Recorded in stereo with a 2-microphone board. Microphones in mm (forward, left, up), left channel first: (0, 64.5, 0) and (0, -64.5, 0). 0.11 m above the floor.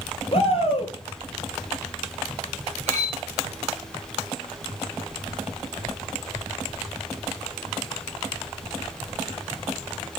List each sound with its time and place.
0.3 s a shout: 45° left (ahead or behind), 2 m
2.9 s cutlery clinking: 60° right (ahead or behind), 4.5 m